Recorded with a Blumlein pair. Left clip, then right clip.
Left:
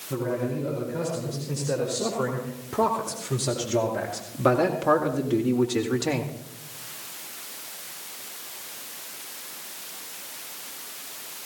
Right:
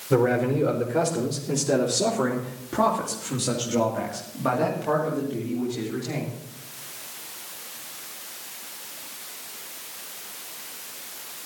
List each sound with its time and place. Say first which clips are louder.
0.1 s a man speaking: right 7 dB; 25° right, 4 m; by 6.3 s 45° left, 2 m